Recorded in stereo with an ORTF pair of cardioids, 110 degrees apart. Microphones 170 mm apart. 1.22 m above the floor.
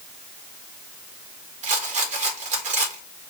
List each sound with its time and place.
1.6 s a rattle: 45° right, 1.5 m